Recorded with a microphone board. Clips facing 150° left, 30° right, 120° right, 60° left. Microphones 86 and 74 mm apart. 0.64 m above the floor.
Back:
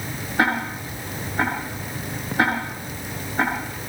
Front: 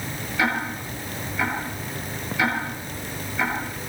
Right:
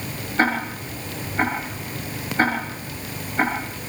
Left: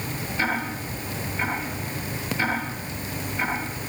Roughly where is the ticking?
Behind.